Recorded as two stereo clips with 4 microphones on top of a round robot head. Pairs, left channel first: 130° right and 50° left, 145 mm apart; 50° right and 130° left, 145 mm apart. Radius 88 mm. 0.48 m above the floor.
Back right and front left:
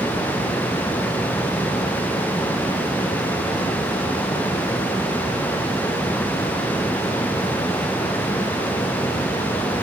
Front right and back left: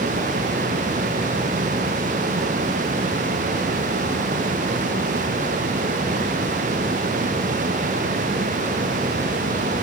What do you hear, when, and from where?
Only background noise.